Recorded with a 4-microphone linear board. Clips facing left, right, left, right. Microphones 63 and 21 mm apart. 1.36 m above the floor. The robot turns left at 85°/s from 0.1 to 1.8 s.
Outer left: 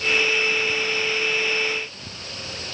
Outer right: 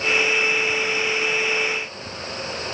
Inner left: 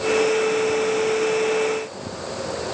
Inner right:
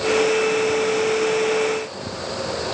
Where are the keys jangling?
No keys jangling in this recording.